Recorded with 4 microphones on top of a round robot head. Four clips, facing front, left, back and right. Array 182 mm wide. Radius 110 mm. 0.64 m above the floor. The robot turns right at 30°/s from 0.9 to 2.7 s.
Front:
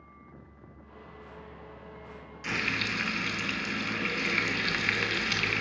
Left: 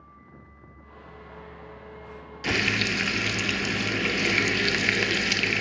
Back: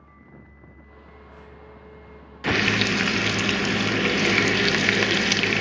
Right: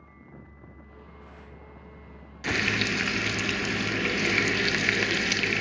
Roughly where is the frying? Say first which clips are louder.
Left 1 dB, back 11 dB; behind.